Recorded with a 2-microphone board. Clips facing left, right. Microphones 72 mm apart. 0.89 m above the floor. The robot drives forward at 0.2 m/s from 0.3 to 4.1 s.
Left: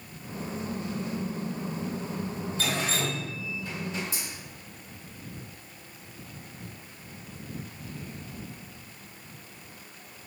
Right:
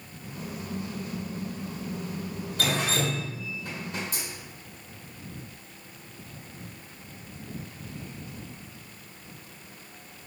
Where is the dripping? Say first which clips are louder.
Right 3 dB; 70° right (ahead or behind), 1.1 m; by 4.2 s 55° right (ahead or behind), 1.2 m.